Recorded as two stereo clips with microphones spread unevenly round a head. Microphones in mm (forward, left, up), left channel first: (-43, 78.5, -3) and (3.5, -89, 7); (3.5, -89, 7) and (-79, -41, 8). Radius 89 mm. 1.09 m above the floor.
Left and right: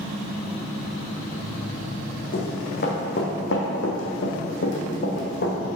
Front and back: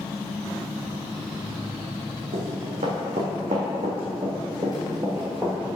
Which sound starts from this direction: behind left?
Running footsteps, at 2.3 s.